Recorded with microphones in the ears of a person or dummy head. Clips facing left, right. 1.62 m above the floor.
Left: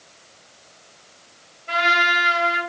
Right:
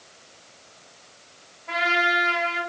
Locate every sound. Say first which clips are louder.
1.7 s a trumpet: left 1 dB; 30° left (ahead or behind), 1.9 m